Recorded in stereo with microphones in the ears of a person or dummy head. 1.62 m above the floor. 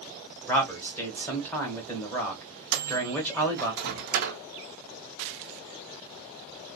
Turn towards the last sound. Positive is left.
turn(degrees=-60)  # may be behind; listen again after turning